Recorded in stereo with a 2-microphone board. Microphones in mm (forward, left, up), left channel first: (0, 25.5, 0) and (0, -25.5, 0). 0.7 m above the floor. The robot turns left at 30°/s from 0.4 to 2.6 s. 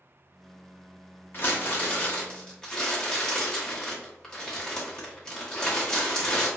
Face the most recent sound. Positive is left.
turn(degrees=20)